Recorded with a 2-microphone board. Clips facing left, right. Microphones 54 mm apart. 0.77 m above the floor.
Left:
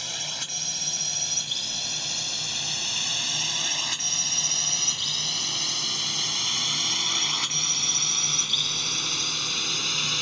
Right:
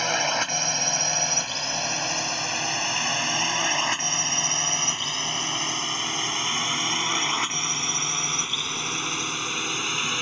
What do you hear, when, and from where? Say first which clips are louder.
0.0 s a drone: right 12 dB; 50° right (ahead or behind); by 10.2 s 20° right (ahead or behind)